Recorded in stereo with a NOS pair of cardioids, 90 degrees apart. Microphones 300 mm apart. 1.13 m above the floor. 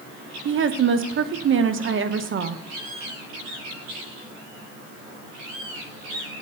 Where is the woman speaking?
45° right, 0.8 m.